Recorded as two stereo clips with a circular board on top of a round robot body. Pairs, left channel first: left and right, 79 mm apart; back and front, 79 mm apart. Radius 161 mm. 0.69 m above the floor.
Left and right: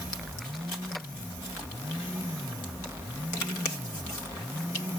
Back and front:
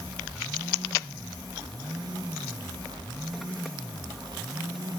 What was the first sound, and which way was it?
Only background noise.